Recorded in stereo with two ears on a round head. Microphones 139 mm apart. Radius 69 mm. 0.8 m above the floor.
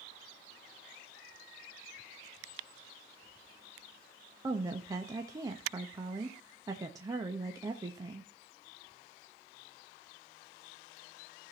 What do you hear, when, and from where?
4.4 s a woman speaking: 20° right (ahead or behind), 0.9 m